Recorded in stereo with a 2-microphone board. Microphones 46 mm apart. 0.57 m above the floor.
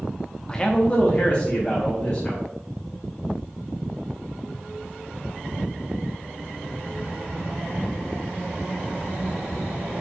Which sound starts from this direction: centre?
A man speaking, at 0.5 s.